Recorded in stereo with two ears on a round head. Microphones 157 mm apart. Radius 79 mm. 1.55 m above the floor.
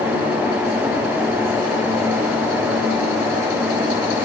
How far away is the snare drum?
I don't hear a snare drum.